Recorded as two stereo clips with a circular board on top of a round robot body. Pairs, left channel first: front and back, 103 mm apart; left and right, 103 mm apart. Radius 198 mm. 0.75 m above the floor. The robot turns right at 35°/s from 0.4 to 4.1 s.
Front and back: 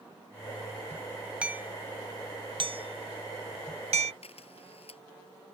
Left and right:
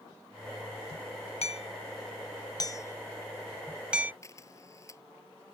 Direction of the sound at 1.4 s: 100° left.